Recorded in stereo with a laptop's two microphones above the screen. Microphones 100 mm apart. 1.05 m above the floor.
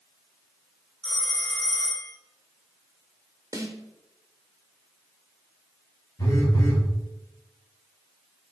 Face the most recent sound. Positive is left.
turn(degrees=40)  # may be behind; listen again after turning